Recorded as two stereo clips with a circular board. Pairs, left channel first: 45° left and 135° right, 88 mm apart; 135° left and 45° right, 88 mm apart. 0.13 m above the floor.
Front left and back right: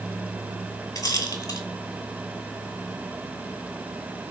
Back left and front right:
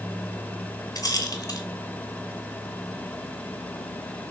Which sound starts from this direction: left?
A rattle, at 0.9 s.